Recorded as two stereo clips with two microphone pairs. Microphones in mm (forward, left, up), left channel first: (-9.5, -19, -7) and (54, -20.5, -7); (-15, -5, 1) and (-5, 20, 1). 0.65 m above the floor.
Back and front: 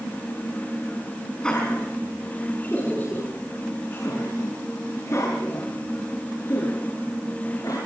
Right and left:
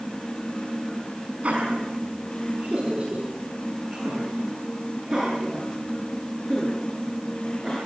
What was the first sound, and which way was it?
Laughter, 105° left.